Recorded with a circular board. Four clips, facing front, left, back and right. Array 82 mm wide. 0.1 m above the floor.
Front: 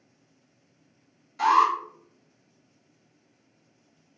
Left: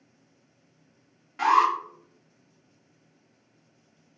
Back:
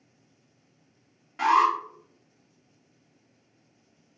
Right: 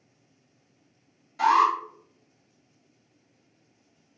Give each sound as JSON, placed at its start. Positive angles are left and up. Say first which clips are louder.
{"t": 1.4, "sound": "an alarm", "louder": "even, front 1 dB", "azimuth_deg": 135, "distance_m": 1.9}